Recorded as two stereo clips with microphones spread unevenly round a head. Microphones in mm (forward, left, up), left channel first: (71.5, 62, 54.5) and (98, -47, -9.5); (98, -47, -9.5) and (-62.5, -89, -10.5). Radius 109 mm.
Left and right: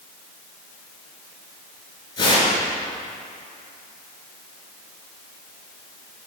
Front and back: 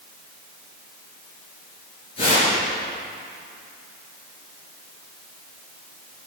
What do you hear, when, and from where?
2.2 s tearing paper: 80° left, 3 m